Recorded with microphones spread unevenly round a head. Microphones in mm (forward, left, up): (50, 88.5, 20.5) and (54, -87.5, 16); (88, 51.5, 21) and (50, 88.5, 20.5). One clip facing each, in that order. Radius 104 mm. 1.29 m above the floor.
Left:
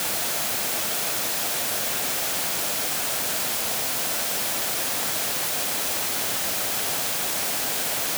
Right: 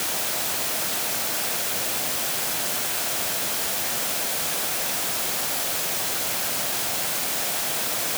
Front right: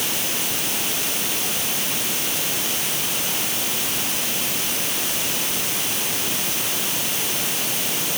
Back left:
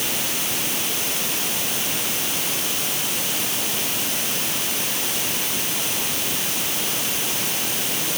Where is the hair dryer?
No hair dryer in this recording.